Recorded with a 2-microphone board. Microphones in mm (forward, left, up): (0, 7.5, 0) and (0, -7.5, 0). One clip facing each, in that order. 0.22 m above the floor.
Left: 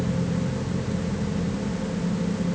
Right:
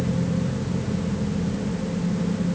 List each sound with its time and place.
Only background noise.